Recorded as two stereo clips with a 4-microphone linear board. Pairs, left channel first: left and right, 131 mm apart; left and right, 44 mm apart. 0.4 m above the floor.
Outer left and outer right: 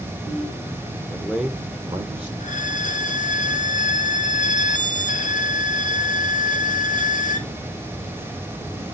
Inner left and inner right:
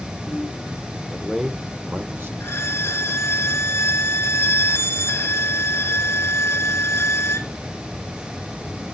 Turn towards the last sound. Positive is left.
turn(degrees=75)  # may be behind; listen again after turning